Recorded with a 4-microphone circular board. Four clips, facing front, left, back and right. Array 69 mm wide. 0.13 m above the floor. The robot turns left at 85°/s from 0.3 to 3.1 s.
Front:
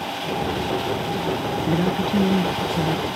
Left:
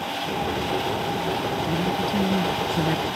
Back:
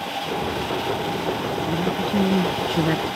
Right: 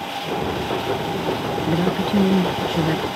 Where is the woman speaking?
55° right; by 3.1 s 175° right.